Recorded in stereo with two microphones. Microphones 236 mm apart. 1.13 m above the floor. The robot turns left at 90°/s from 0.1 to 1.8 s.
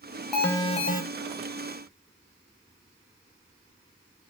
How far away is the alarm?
About 0.6 m.